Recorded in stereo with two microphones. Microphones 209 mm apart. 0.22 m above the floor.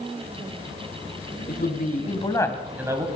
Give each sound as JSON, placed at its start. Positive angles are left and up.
{"t": 1.5, "sound": "a man speaking", "side_deg": 50, "distance_m": 2.5}